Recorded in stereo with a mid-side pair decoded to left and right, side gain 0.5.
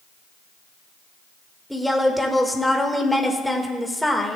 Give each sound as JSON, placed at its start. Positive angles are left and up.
{"t": 1.7, "sound": "a woman speaking", "azimuth_deg": 5, "distance_m": 1.7}